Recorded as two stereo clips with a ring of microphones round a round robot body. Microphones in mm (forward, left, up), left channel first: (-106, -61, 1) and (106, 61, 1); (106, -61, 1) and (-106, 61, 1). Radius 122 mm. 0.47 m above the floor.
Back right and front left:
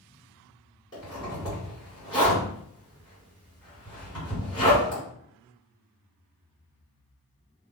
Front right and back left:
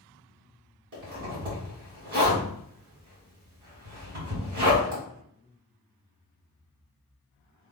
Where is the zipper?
140° left, 2.0 m.